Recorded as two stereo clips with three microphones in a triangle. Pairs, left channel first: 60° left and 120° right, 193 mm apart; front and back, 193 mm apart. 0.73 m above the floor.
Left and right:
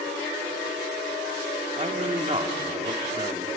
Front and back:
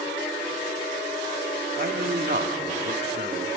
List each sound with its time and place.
1.8 s a man speaking: 170° right, 1.9 m